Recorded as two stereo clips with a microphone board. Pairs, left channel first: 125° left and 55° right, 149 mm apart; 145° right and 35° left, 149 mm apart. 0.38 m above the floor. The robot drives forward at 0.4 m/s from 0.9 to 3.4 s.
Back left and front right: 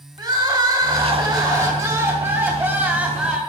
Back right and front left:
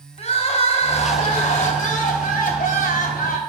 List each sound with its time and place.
0.2 s crying: 110° right, 1.6 m; by 3.4 s 135° right, 2 m